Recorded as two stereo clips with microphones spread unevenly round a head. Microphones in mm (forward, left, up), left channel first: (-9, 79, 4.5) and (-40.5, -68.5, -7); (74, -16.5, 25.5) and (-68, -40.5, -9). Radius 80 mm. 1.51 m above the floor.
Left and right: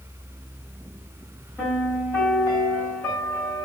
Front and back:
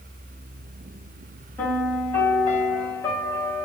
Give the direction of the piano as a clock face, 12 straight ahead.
11 o'clock.